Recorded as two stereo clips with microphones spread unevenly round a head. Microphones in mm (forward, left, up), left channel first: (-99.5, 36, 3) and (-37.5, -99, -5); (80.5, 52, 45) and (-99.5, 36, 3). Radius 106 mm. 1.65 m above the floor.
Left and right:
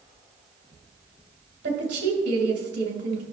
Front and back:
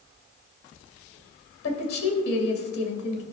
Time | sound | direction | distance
1.6 | a woman speaking | 20° right | 2.5 m